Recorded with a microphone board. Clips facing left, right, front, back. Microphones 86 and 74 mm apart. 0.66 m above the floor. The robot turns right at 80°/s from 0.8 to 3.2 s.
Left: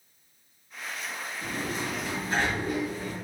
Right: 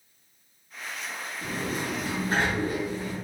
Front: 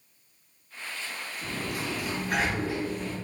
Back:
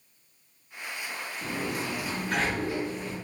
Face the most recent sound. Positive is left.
turn(degrees=-10)